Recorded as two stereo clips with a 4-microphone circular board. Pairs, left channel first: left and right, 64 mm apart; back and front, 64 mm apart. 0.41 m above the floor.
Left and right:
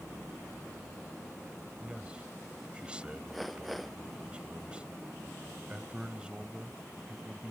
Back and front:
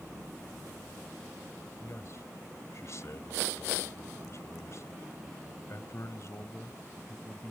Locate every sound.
1.8 s a man speaking: 160° right